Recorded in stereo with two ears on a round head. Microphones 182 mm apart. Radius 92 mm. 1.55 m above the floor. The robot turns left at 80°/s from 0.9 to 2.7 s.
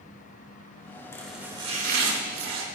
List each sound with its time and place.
1.1 s chopping: 15° left, 3 m; by 2.6 s 105° right, 3 m